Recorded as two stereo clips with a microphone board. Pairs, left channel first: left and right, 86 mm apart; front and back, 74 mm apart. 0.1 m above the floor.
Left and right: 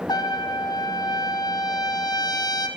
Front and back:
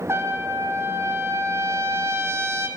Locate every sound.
0.1 s a trumpet: 125° left, 2.5 m